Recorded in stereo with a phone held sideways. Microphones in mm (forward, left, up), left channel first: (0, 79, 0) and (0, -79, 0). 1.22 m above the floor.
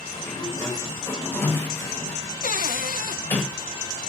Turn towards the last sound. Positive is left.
turn(degrees=60)  # may be behind; listen again after turning